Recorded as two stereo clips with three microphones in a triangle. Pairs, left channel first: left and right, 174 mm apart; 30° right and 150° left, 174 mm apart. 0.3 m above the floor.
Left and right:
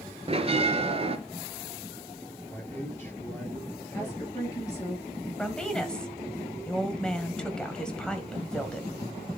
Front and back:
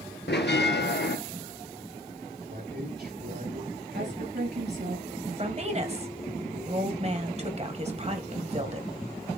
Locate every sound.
0.3 s a bell: 35° right, 1.2 m
2.5 s a man speaking: 170° left, 5.5 m
3.9 s a woman speaking: 160° left, 5 m
5.4 s a woman speaking: 170° left, 1.7 m